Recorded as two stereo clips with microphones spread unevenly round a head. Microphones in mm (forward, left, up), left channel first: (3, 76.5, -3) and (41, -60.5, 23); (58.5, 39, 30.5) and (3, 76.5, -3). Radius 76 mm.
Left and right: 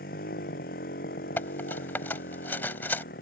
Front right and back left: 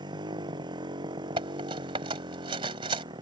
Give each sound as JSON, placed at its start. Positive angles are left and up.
{"t": 0.0, "sound": "a motorcycle", "azimuth_deg": 145}
{"t": 1.4, "sound": "cutlery clinking", "azimuth_deg": -175}